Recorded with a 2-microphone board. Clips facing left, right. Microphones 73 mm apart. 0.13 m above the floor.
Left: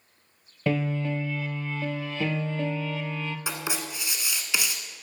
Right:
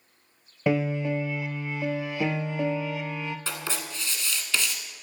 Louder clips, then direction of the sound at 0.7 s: Right 2 dB; 15° right (ahead or behind).